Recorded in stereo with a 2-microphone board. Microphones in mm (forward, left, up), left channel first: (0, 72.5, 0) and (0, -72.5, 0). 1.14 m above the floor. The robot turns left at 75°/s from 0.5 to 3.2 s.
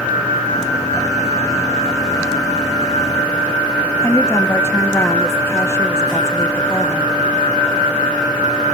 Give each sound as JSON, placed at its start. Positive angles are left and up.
{"t": 4.0, "sound": "a woman speaking", "side_deg": 20, "distance_m": 1.6}